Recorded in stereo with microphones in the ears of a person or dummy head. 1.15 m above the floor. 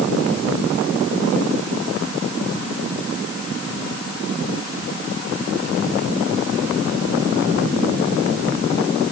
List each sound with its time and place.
Only background noise.